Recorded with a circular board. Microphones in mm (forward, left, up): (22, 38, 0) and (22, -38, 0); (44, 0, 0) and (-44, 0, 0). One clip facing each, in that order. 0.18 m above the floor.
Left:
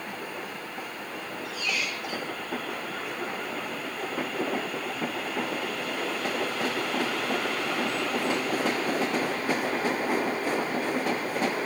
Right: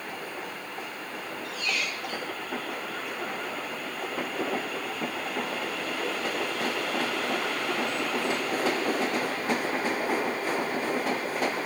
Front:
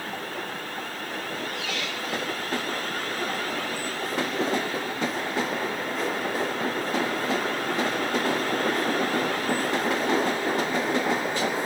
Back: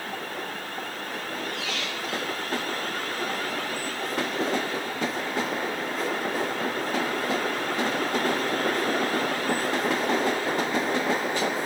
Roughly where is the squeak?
Behind.